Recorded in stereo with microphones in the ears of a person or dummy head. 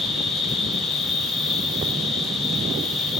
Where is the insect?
Centre (ahead or behind), 2.5 m.